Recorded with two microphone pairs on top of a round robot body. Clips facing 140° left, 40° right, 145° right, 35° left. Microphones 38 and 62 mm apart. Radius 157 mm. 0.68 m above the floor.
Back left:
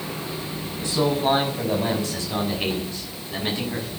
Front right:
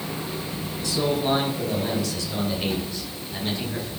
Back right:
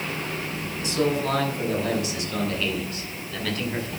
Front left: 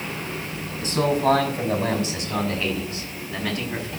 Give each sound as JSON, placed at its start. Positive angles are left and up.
{"t": 0.8, "sound": "a man speaking", "azimuth_deg": 85, "distance_m": 5.5}